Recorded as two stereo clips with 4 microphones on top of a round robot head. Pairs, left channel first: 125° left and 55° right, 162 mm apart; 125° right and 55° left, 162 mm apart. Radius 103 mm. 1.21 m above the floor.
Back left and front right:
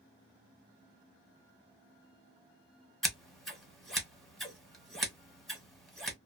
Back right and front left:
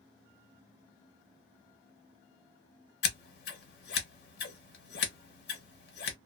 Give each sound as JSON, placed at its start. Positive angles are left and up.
{"t": 3.0, "sound": "scissors", "azimuth_deg": -145, "distance_m": 1.1}